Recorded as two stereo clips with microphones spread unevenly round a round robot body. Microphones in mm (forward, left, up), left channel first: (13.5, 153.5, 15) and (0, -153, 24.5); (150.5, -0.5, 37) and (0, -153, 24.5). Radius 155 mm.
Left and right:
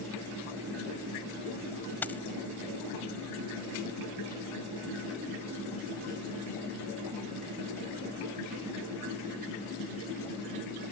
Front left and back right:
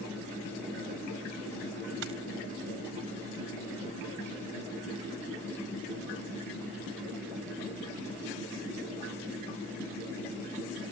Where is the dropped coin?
170° left.